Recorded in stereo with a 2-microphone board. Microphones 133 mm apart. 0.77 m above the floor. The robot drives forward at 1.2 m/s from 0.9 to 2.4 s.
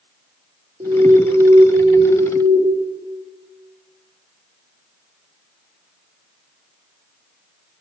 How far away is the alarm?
About 3 m.